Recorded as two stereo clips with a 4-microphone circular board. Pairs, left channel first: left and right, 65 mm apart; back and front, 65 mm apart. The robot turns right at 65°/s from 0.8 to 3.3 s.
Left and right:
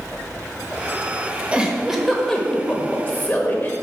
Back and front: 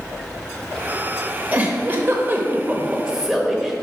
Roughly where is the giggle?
Ahead right.